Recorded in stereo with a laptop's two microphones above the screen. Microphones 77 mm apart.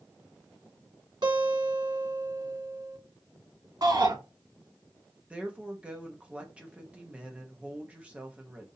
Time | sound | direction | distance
1.2 | a guitar | 70° right (ahead or behind) | 1.8 m
3.8 | a shout | 55° right (ahead or behind) | 2 m
5.3 | a woman speaking | 15° right (ahead or behind) | 0.8 m